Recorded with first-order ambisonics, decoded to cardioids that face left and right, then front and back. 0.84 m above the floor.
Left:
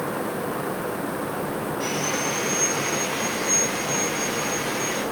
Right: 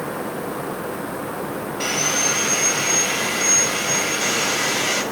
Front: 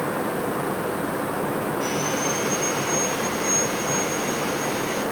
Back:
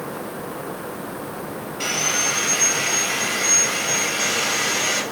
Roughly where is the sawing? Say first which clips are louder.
Right 7 dB, back 8 dB; behind right.